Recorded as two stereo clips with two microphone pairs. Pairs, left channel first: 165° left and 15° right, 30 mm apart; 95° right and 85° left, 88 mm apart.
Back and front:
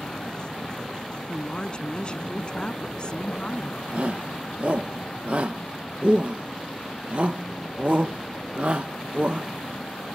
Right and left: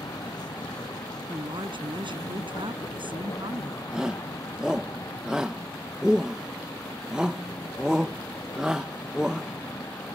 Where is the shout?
5° left.